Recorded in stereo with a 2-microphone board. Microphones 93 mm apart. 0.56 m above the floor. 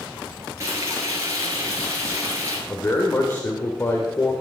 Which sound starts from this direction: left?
A man speaking, at 2.7 s.